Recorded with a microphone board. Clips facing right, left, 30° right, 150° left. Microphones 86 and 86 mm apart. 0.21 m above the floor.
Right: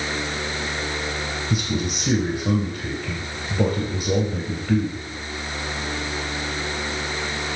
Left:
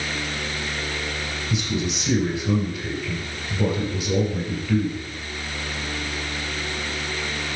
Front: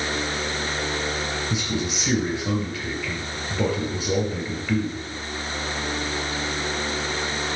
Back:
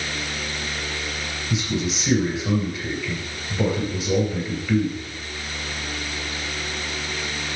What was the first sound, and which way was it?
A man speaking, 110° right.